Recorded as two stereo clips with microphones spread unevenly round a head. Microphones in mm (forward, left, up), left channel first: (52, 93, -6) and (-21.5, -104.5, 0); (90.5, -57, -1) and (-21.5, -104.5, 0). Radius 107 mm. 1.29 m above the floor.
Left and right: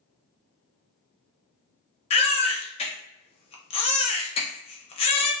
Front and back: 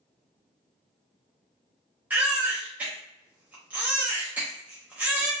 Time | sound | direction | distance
2.1 | a baby crying | 125° left | 0.5 m